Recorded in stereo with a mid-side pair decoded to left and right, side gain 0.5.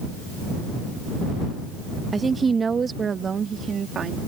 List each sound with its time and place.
2.1 s a woman speaking: 25° right; by 4.2 s 45° right